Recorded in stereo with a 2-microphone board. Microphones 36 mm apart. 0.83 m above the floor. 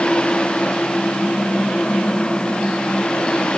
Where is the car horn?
I don't hear a car horn.